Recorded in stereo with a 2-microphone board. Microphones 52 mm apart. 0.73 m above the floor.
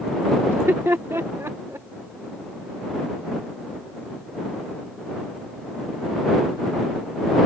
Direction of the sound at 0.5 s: 55° right (ahead or behind).